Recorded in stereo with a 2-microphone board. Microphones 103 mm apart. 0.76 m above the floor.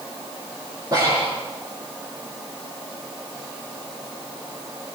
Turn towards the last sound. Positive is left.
turn(degrees=-40)  # may be behind; listen again after turning